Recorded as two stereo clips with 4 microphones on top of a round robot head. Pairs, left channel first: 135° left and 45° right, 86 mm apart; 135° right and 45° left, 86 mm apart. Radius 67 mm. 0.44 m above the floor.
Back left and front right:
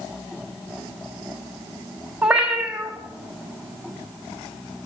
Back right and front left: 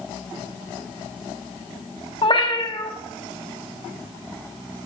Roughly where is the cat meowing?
Behind right.